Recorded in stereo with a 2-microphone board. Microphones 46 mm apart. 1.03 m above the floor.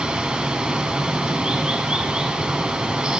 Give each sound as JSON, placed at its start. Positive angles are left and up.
{"t": 0.0, "sound": "running water", "side_deg": -20, "distance_m": 1.5}